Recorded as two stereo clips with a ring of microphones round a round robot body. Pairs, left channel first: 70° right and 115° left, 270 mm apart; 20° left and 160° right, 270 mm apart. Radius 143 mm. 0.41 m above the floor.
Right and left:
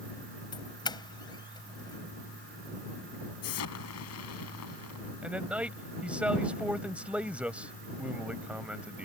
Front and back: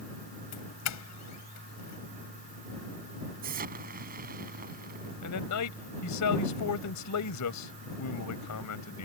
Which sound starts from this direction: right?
An explosion, at 3.4 s.